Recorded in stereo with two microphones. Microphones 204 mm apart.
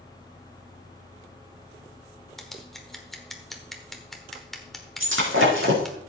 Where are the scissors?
Centre (ahead or behind), 1.3 m.